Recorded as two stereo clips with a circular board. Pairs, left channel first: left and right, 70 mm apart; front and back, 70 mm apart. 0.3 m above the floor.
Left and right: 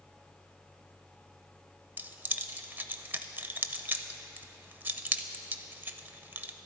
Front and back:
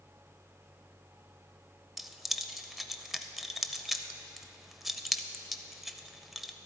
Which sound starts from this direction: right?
Keys jangling, at 2.0 s.